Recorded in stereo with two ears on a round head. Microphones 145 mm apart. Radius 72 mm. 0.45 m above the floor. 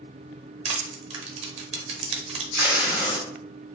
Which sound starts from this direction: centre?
Tape being pulled, at 2.5 s.